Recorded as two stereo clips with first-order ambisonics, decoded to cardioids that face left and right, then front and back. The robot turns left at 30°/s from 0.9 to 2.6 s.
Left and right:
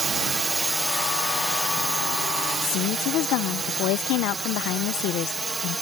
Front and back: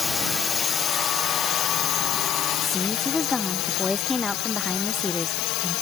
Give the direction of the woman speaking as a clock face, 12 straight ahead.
9 o'clock.